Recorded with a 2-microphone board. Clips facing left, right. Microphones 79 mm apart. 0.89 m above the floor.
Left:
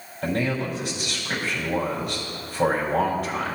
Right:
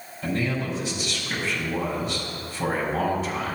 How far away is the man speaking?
About 4 m.